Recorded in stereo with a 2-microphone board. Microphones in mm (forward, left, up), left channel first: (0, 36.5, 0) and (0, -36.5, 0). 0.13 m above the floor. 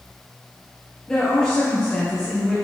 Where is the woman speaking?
10° left (ahead or behind), 2.5 m.